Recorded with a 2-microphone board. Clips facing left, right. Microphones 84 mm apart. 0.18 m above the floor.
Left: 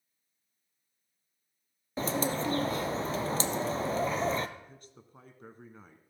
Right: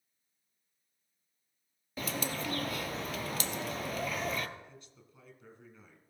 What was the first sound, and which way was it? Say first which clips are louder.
A bird: left 6 dB; 30° left (ahead or behind).